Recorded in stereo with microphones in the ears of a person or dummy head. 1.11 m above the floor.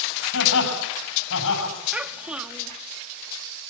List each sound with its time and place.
0.3 s laughter: 70° left (ahead or behind), 7 m
1.9 s a child speaking: 5° right (ahead or behind), 1.1 m